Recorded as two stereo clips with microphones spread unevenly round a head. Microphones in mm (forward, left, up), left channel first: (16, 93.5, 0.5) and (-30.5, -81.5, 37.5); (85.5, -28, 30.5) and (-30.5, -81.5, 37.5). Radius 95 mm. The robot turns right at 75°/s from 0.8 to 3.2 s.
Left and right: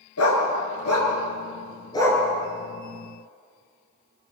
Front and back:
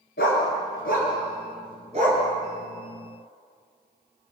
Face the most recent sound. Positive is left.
turn(degrees=-120)